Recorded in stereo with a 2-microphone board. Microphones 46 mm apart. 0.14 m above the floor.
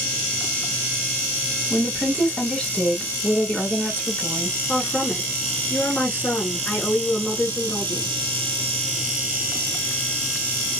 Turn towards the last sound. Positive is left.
turn(degrees=45)  # may be behind; listen again after turning